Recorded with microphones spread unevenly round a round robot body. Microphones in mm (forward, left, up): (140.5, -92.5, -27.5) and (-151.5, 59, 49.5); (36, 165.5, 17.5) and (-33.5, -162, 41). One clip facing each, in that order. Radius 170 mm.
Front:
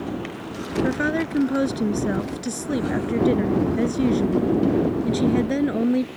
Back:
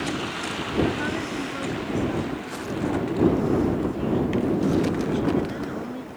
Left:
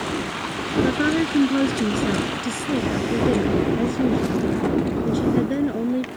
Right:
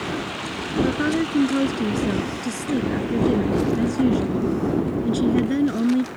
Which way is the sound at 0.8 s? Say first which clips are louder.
Front 4 dB, left 1 dB; 5° right.